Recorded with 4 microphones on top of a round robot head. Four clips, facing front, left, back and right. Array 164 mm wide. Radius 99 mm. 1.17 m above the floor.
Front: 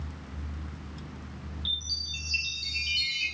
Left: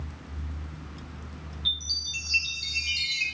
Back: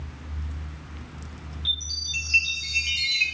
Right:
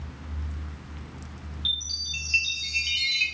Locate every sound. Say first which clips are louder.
1.6 s a chime: even, back 3 dB; 155° right, 4.5 m